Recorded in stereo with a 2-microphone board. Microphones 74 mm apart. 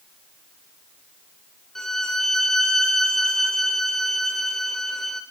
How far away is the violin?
About 0.8 m.